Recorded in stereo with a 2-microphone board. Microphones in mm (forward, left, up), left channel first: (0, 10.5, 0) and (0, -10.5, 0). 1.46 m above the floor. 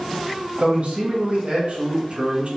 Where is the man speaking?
75° right (ahead or behind), 1.9 m.